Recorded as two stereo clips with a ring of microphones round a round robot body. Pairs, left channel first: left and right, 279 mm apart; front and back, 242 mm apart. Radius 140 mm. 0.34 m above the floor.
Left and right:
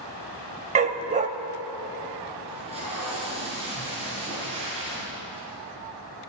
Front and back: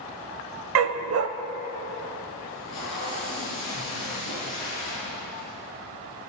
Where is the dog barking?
155° right, 0.6 m.